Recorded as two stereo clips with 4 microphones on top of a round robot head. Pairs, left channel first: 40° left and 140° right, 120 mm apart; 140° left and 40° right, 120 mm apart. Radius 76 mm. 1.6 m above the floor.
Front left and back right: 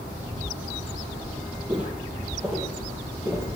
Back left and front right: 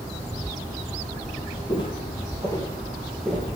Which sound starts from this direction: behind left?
Footsteps, at 1.7 s.